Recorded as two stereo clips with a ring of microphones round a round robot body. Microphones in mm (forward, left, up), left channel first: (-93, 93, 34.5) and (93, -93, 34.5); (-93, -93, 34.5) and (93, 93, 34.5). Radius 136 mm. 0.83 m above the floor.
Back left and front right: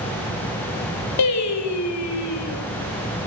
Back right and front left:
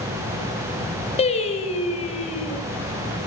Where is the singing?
155° left, 5 m.